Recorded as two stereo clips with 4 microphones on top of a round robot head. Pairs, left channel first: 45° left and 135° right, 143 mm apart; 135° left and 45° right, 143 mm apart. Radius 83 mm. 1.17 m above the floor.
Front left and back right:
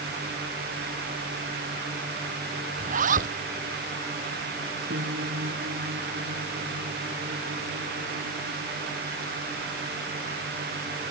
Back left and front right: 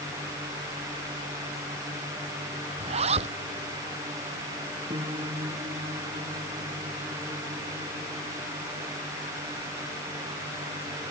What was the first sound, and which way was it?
A zipper, 100° right.